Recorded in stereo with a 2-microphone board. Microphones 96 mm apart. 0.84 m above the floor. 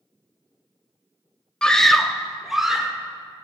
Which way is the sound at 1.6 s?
10° left (ahead or behind).